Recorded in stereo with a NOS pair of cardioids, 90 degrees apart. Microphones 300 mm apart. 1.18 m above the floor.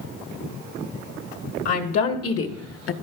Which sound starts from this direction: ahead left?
A woman speaking, at 1.6 s.